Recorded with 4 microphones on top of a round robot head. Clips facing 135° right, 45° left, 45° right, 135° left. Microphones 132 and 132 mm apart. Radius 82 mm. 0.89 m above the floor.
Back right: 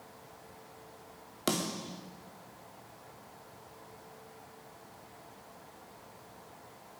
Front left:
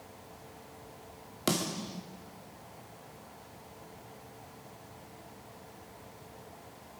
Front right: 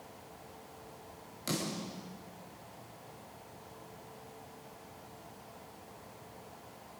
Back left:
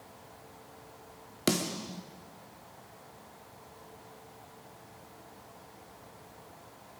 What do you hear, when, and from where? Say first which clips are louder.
1.5 s a snare drum: front left 1 dB, back left 6 dB; 135° left, 2.5 m